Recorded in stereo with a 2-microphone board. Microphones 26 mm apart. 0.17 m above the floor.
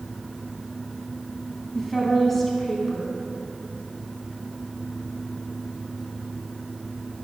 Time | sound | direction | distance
1.8 | a woman speaking | 10° left (ahead or behind) | 1.2 m